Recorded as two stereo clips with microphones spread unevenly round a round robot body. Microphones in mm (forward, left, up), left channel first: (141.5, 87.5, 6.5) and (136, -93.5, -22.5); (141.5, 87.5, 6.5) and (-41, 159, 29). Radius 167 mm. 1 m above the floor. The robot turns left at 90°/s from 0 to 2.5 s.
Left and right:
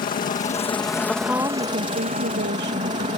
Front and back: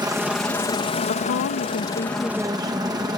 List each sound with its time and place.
0.0 s a helicopter: 95° left; by 3.2 s 130° right
1.1 s a woman speaking: 5° left; by 3.1 s 120° right